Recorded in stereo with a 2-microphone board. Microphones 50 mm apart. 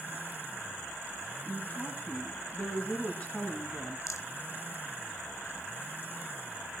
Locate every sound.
1.5 s a woman speaking: 30° left (ahead or behind), 2 m
4.1 s a rattle: 85° left, 1.2 m